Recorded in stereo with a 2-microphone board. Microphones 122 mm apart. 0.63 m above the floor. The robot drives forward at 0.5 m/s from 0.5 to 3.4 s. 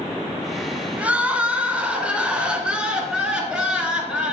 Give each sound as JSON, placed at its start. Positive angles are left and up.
{"t": 1.0, "sound": "crying", "side_deg": -10, "distance_m": 1.6}